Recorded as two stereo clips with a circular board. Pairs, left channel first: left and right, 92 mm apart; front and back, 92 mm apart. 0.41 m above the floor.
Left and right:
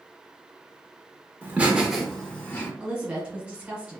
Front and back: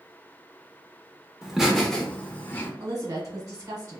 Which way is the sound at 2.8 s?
160° right.